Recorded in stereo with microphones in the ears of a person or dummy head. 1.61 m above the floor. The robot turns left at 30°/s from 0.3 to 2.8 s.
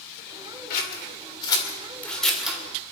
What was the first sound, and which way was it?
Scissors, 50° left (ahead or behind).